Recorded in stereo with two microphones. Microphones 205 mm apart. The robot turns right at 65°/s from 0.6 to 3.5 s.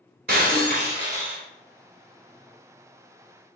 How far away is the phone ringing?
I don't hear a phone ringing.